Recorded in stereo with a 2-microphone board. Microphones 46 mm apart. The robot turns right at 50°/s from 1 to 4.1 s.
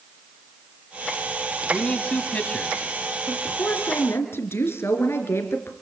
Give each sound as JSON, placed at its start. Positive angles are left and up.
{"t": 1.7, "sound": "a man speaking", "side_deg": 20, "distance_m": 1.9}
{"t": 3.3, "sound": "a woman speaking", "azimuth_deg": 30, "distance_m": 3.0}